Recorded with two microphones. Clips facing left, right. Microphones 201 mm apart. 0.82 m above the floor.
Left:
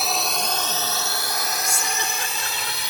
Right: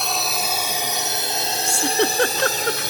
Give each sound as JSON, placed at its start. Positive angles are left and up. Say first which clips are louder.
{"t": 0.0, "sound": "a drone", "louder": "even", "side_deg": 5}
{"t": 1.6, "sound": "a giggle", "louder": "right 9 dB", "side_deg": -70}